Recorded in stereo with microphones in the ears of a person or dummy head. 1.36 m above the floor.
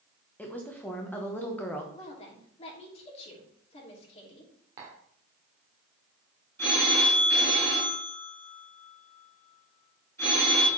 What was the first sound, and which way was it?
A woman speaking, 10° left (ahead or behind).